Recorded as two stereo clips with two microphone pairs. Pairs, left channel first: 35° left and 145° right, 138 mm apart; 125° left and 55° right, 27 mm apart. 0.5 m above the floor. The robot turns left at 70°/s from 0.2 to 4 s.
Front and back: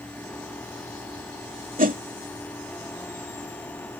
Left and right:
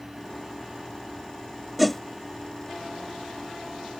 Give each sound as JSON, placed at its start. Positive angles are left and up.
{"t": 1.8, "sound": "a whoosh", "azimuth_deg": -145}